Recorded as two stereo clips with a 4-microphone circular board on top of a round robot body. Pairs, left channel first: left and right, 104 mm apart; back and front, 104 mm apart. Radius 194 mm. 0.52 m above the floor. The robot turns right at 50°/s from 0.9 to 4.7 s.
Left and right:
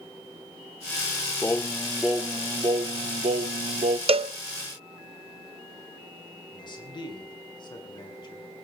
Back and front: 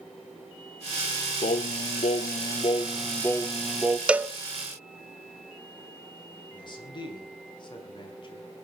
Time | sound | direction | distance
1.4 | singing | 160° left | 0.8 m
4.1 | a cowbell | 80° right | 0.9 m
6.5 | a man speaking | 135° left | 5.5 m